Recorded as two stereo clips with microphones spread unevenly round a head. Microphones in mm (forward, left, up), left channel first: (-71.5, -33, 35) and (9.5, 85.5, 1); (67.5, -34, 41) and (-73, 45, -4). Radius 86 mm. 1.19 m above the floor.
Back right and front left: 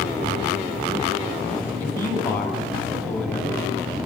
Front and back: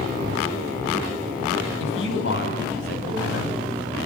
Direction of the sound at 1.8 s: 45° right.